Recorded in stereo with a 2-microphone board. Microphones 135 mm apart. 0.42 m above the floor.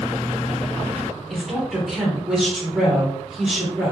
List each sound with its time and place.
1.3 s a woman speaking: 5° right (ahead or behind), 1.1 m